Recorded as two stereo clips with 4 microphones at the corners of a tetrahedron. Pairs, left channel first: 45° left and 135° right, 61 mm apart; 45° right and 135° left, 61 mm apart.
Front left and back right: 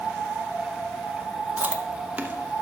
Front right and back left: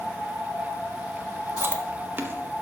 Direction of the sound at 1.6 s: 170° left.